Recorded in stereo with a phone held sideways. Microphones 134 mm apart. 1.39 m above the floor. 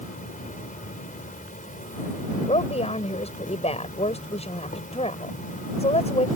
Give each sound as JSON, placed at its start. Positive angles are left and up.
{"t": 0.0, "sound": "an insect", "side_deg": 80}
{"t": 2.5, "sound": "a woman speaking", "side_deg": 50}